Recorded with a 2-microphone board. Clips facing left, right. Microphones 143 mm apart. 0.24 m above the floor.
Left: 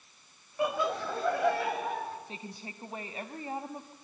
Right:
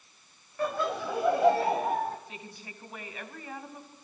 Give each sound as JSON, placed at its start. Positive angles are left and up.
{"t": 0.6, "sound": "laughter", "side_deg": 15, "distance_m": 1.3}
{"t": 2.3, "sound": "a woman speaking", "side_deg": 30, "distance_m": 1.4}